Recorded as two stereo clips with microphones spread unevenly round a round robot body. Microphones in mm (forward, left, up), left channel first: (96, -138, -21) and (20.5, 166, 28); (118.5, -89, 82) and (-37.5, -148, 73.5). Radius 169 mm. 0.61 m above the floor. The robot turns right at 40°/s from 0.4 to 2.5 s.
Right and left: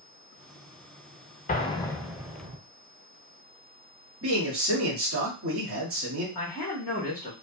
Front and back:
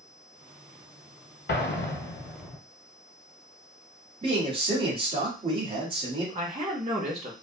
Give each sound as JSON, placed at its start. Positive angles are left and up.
{"t": 1.5, "sound": "an explosion", "azimuth_deg": -10, "distance_m": 0.6}
{"t": 4.2, "sound": "a man speaking", "azimuth_deg": 150, "distance_m": 0.8}
{"t": 6.3, "sound": "a man speaking", "azimuth_deg": -145, "distance_m": 0.8}